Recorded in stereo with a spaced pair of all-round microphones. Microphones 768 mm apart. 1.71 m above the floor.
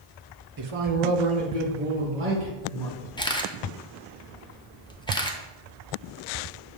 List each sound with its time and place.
0.6 s a man speaking: 30° right (ahead or behind), 0.6 m; by 3.1 s 85° right, 3 m
3.2 s a camera shutter: 5° left (ahead or behind), 0.6 m